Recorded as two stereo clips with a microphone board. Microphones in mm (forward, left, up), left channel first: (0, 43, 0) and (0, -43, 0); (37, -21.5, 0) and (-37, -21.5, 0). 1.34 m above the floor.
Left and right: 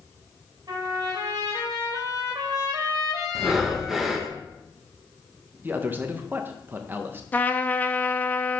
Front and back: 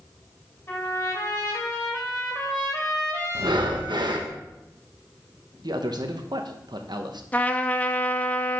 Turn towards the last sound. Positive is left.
turn(degrees=45)